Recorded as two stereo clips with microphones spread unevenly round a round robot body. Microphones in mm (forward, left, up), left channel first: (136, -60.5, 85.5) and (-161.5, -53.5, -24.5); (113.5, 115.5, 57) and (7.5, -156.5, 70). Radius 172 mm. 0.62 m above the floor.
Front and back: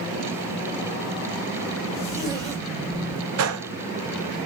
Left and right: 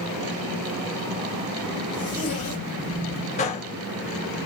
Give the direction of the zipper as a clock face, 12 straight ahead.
8 o'clock.